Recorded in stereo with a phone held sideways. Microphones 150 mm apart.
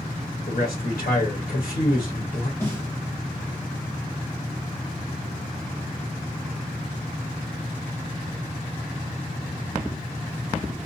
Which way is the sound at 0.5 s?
70° left (ahead or behind).